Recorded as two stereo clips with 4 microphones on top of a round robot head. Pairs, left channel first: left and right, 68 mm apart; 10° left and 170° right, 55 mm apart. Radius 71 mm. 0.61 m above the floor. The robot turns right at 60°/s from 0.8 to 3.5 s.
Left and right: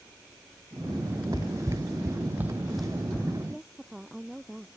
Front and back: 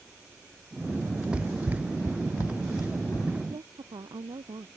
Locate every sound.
1.3 s running footsteps: 120° left; by 3.4 s 35° left
3.5 s a woman speaking: 175° right